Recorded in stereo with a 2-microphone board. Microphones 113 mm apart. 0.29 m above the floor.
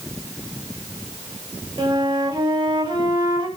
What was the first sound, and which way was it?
A flute, 40° right (ahead or behind).